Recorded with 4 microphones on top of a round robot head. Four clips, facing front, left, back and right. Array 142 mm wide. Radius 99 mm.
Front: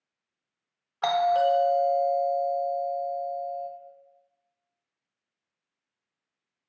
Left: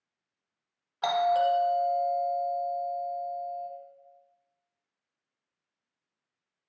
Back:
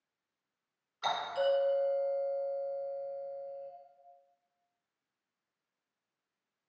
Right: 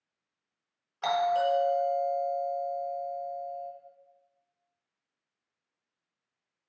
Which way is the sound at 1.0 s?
20° left.